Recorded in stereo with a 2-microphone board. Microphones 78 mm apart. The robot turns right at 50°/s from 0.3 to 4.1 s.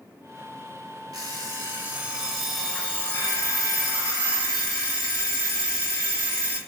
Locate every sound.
1.1 s an alarm clock: 65° right, 0.8 m; by 6.6 s 85° left, 0.8 m